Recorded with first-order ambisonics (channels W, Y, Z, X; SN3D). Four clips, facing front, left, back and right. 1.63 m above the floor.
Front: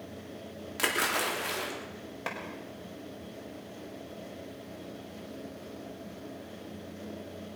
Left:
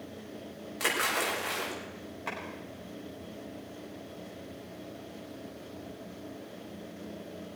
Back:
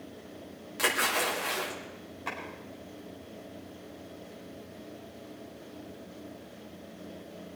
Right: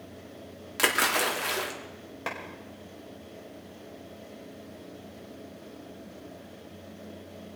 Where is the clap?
50° right, 5.5 m.